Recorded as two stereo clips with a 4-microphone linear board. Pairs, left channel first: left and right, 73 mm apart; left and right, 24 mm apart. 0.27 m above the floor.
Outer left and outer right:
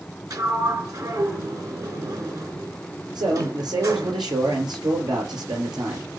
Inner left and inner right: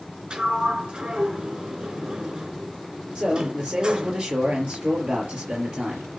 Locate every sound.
0.3 s a sliding door: 50° right (ahead or behind), 4 m
3.1 s a man speaking: 75° right (ahead or behind), 4.5 m